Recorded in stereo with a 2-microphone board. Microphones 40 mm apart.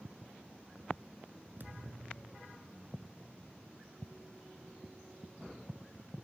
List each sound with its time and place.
1.6 s a thud: 50° right (ahead or behind)